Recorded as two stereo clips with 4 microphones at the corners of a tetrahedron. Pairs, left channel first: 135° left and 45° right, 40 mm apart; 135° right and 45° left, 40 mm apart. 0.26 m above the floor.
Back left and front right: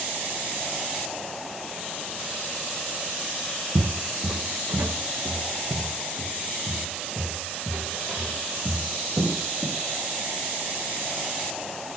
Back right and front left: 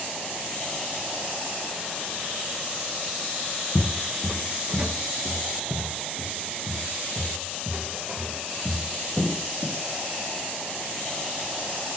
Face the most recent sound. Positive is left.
turn(degrees=-5)